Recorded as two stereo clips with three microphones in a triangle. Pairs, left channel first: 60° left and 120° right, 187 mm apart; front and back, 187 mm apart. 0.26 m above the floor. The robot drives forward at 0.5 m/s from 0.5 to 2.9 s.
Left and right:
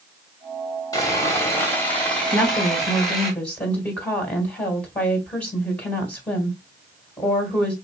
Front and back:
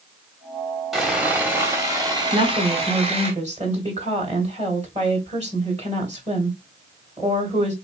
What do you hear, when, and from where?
0.9 s sawing: 90° left, 1.6 m; by 3.3 s 150° left, 1.9 m
2.3 s a woman speaking: 130° left, 1.8 m; by 7.7 s 140° left, 1.9 m